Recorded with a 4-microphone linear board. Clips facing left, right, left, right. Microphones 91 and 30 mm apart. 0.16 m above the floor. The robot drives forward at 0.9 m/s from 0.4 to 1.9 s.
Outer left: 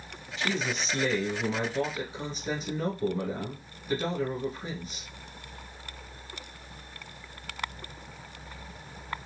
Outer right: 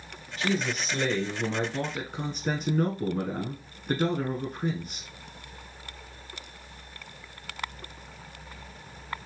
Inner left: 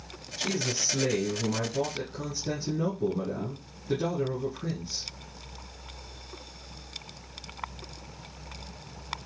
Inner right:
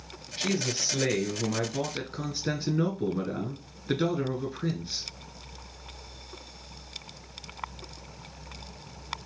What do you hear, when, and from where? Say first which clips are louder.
0.4 s a man speaking: outer right 2 dB, inner right 1 dB; 45° right (ahead or behind), 2 m; by 5.1 s 60° right (ahead or behind), 1.8 m